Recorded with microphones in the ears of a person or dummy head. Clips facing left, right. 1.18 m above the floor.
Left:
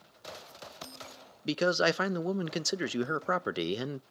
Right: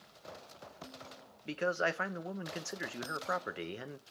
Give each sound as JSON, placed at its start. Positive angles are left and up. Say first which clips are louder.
{"t": 1.4, "sound": "a man speaking", "louder": "left 7 dB", "side_deg": 50, "distance_m": 0.7}